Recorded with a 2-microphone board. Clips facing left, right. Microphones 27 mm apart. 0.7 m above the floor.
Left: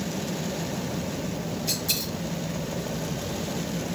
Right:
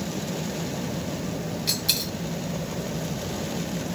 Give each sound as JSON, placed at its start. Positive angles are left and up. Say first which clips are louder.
{"t": 1.7, "sound": "a dropped coin", "louder": "right 4 dB", "side_deg": -50, "distance_m": 3.0}